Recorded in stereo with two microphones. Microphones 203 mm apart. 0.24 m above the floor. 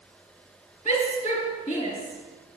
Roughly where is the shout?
Left.